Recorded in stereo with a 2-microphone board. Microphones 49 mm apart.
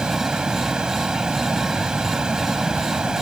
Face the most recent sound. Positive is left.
turn(degrees=-15)  # may be behind; listen again after turning